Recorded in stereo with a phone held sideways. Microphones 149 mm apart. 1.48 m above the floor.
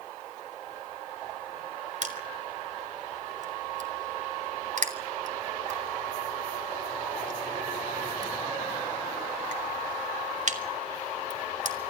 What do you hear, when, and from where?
2.0 s crushing: 55° right (ahead or behind), 3.5 m